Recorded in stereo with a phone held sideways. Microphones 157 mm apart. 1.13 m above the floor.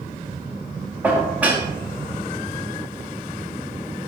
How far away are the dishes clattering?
About 1.1 m.